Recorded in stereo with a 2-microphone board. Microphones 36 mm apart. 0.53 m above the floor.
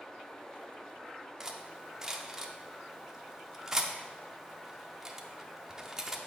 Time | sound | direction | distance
1.4 | cutlery clinking | 15° right (ahead or behind) | 0.5 m